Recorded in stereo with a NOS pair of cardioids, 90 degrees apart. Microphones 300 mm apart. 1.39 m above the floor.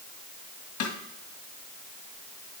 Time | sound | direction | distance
0.8 | a snare drum | 70° left | 2 m